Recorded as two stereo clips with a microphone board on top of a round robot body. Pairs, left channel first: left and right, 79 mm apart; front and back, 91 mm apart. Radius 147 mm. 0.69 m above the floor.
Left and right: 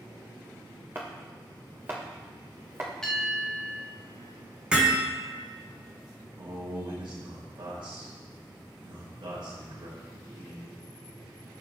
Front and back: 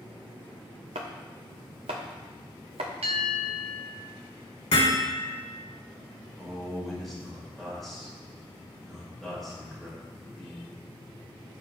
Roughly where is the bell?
Behind.